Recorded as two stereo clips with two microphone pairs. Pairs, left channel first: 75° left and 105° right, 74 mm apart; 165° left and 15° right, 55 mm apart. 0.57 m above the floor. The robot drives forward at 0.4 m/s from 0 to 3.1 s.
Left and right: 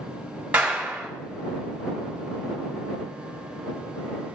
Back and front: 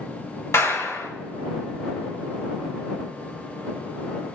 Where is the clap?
175° right, 3.5 m.